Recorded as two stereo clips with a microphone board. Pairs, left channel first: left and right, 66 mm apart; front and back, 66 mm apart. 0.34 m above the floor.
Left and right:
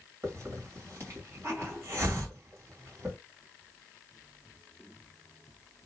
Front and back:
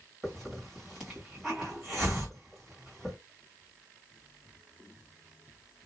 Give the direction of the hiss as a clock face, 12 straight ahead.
3 o'clock.